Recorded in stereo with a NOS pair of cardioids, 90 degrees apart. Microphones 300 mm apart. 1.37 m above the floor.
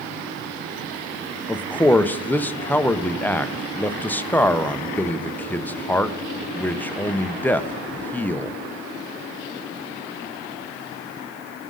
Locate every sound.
1.5 s a man speaking: 5° left, 0.7 m